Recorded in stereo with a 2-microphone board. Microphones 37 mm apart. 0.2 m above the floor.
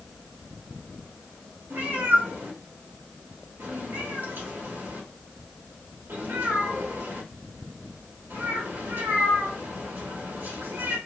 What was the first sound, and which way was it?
A cat meowing, 75° right (ahead or behind).